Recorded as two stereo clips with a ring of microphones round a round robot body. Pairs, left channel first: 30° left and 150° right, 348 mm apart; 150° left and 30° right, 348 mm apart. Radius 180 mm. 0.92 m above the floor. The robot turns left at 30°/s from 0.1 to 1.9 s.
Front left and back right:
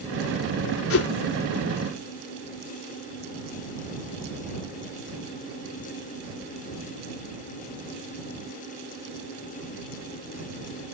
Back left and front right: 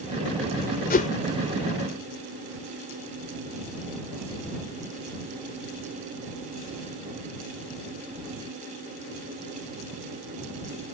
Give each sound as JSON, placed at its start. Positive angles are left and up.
{"t": 0.9, "sound": "a whoosh", "azimuth_deg": 85}